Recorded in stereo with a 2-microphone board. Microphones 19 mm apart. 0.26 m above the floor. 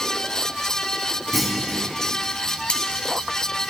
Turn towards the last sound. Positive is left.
turn(degrees=65)  # may be behind; listen again after turning